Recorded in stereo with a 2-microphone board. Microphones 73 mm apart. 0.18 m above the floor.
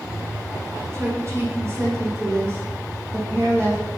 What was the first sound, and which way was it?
A woman speaking, 40° right (ahead or behind).